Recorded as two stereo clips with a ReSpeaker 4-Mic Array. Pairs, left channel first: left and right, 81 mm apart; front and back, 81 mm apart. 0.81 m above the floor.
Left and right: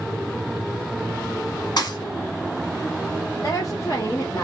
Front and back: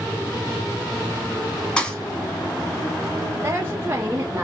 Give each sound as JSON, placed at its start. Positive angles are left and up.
{"t": 1.8, "sound": "a thud", "azimuth_deg": 80, "distance_m": 1.1}
{"t": 3.4, "sound": "a woman speaking", "azimuth_deg": 125, "distance_m": 0.8}